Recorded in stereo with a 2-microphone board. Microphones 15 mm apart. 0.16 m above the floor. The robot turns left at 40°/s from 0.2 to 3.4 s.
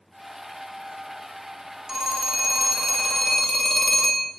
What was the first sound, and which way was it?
A phone ringing, 135° right.